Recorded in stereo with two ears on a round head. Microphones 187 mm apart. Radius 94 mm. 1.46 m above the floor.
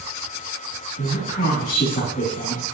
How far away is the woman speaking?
About 3.5 m.